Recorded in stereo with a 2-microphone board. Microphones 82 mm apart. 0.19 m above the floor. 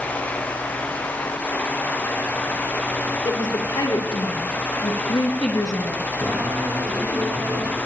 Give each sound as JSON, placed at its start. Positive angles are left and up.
{"t": 3.2, "sound": "a woman speaking", "side_deg": 70, "distance_m": 3.5}
{"t": 6.2, "sound": "singing", "side_deg": -30, "distance_m": 2.5}